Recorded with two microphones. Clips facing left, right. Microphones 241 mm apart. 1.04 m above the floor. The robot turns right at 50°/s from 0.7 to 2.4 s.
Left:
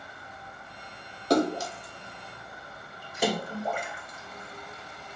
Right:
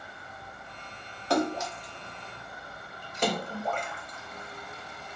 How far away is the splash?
About 0.6 m.